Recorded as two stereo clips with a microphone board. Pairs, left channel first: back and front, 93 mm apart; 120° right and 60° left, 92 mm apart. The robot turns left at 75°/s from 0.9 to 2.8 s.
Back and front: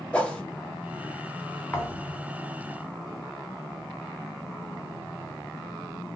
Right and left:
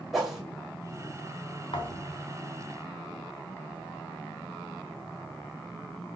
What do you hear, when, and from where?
0.1 s a whoosh: 140° left, 1.2 m
1.7 s a thud: 115° right, 1.0 m; by 2.2 s 150° right, 1.0 m